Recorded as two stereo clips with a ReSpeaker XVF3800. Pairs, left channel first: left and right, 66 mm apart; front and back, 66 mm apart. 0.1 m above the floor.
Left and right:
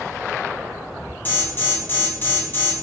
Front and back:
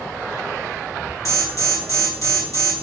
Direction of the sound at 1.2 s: 35° left.